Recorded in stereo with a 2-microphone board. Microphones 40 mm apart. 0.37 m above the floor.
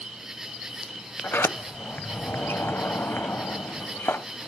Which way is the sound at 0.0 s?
10° right (ahead or behind).